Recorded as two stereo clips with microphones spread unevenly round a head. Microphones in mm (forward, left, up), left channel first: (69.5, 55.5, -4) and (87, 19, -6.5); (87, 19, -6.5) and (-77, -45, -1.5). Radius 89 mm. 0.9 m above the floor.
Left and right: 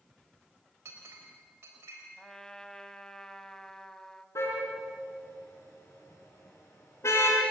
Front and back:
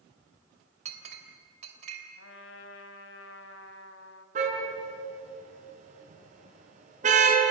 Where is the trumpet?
40° left, 1.7 m.